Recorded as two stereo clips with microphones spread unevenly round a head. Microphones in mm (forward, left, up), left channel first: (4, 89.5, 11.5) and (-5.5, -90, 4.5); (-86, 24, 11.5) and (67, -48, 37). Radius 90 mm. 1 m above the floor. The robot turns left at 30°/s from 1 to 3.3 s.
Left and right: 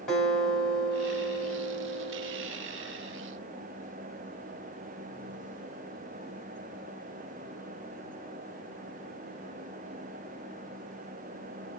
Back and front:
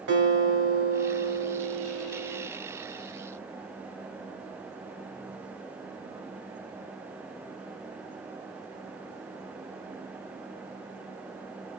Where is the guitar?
Straight ahead, 1.9 m; by 2.5 s 45° right, 1.9 m.